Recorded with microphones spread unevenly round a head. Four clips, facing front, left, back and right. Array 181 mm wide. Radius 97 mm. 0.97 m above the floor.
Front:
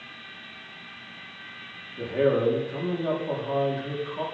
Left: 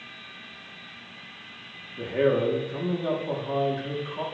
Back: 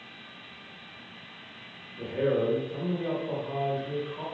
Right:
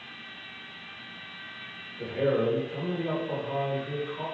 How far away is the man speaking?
About 2.5 m.